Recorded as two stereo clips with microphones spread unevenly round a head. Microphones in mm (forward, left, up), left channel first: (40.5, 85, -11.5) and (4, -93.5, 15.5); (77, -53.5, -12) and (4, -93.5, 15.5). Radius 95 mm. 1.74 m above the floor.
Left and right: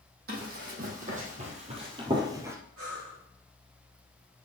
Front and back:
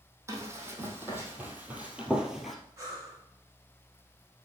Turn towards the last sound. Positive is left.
turn(degrees=-105)